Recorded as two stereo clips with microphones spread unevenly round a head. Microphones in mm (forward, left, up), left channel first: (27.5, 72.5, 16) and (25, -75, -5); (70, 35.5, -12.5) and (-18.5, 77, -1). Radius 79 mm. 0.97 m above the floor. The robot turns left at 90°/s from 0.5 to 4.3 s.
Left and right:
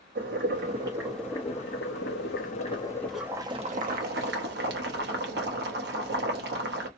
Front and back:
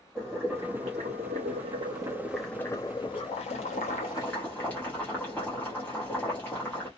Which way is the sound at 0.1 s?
125° right.